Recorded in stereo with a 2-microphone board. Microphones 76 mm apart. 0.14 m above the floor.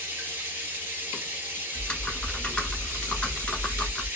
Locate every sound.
0.0 s running water: 25° right (ahead or behind), 1.4 m
1.8 s typing on a keyboard: 15° left (ahead or behind), 0.8 m